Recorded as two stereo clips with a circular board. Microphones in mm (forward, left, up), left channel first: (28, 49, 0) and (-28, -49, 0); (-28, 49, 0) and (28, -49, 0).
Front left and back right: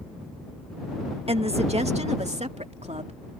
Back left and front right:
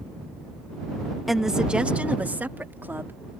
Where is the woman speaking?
150° right; by 3.2 s 130° right.